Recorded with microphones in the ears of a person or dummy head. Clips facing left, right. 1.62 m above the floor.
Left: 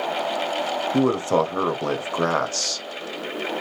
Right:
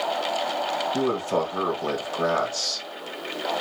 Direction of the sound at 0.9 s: 65° left (ahead or behind).